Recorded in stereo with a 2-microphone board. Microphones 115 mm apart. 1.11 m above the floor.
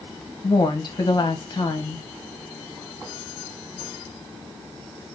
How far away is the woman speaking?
About 0.9 m.